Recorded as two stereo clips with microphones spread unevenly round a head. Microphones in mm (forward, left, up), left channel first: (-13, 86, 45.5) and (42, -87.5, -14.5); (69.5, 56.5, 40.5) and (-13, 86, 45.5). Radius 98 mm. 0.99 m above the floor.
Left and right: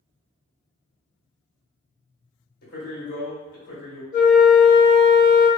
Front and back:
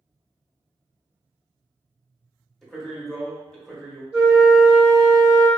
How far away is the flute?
About 1.1 m.